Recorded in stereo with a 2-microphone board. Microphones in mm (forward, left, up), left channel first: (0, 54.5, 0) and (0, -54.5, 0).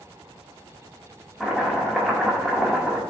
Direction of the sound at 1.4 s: 5° right (ahead or behind).